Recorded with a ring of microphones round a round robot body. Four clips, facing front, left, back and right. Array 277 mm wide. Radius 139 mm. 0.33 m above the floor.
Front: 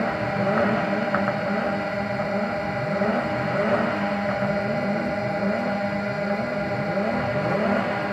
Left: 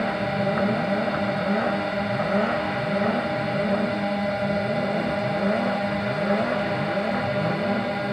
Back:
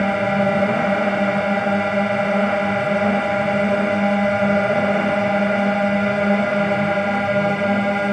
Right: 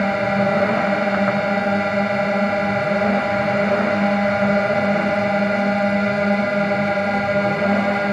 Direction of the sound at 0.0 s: 140° right.